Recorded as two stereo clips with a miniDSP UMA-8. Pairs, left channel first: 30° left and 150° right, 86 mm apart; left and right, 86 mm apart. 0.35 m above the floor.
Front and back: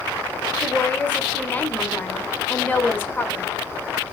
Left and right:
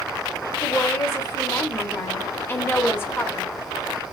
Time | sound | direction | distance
0.6 | a woman speaking | 75° left | 0.9 m